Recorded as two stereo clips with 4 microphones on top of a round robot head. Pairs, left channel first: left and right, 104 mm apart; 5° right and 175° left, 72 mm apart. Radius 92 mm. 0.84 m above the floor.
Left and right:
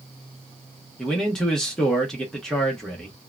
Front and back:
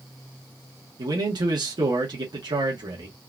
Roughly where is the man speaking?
Behind.